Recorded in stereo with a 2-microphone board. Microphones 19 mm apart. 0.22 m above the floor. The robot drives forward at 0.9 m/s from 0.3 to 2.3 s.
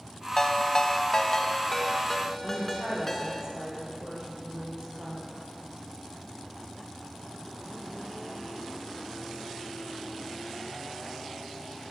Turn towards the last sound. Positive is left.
turn(degrees=-40)  # may be behind; listen again after turning